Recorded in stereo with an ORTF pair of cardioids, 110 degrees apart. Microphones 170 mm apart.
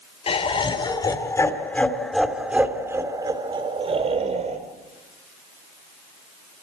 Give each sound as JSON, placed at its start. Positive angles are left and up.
{"t": 0.3, "sound": "laughter", "azimuth_deg": 35, "distance_m": 4.5}